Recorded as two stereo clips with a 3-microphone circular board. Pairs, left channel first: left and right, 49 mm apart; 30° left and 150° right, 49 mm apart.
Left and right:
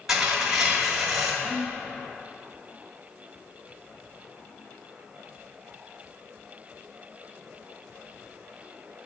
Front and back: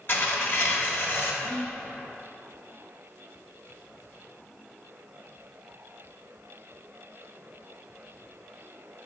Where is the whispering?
40° right, 0.8 m.